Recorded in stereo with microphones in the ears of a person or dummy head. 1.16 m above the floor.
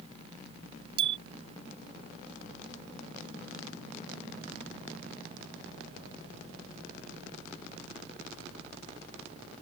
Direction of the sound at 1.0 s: 30° right (ahead or behind).